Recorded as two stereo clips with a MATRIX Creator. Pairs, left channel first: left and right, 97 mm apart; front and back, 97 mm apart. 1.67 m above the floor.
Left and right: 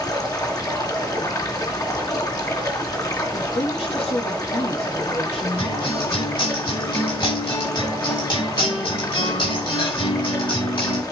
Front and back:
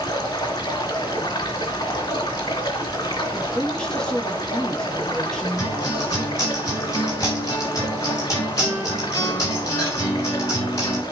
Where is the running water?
40° left, 3.5 m.